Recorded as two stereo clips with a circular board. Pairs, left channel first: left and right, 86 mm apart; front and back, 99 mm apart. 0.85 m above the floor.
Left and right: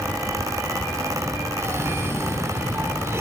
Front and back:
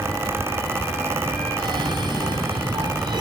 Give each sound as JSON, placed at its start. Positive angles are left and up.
{"t": 1.6, "sound": "a cough", "azimuth_deg": -145, "distance_m": 3.0}